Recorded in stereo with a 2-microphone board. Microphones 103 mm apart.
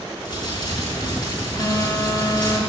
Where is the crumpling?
35° left (ahead or behind), 6 m.